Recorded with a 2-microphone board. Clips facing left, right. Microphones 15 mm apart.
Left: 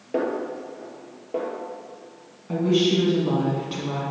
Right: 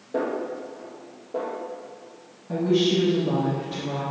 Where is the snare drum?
80° left, 2.5 m.